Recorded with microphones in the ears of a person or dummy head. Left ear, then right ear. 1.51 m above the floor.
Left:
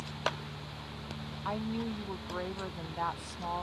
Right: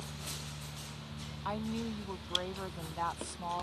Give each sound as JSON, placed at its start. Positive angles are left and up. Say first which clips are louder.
{"t": 1.4, "sound": "a woman speaking", "louder": "left 2 dB", "side_deg": 0}